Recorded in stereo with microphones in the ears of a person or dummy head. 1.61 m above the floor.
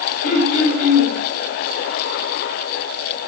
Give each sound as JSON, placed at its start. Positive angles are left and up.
{"t": 0.2, "sound": "throat clearing", "side_deg": 45, "distance_m": 1.1}